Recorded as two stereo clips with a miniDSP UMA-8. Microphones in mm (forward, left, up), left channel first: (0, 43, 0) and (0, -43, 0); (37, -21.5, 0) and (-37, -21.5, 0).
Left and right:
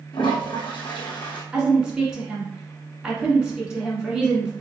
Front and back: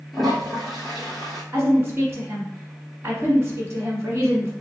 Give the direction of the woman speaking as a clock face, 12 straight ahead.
5 o'clock.